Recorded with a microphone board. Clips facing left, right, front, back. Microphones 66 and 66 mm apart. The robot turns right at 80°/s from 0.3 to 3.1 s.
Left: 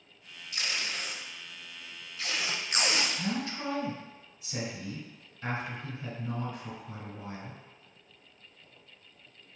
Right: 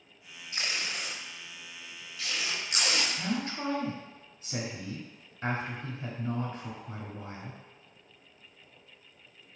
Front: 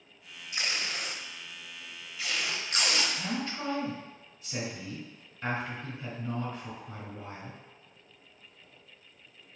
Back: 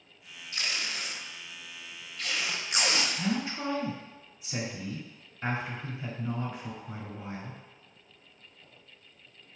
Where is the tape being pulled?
60° right, 0.5 m; by 3.1 s 145° left, 0.5 m.